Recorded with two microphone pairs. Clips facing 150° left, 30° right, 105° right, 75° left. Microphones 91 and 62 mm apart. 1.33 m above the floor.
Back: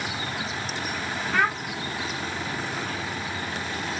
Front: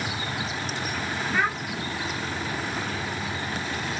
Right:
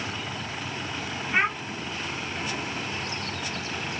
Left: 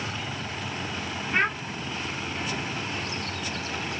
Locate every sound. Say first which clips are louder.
1.3 s a child speaking: back 2 dB, right 1 dB; 170° left, 2.5 m